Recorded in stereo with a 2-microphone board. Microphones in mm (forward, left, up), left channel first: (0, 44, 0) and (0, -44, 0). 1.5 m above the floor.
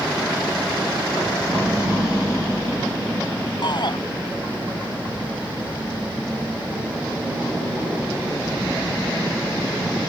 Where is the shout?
55° left (ahead or behind).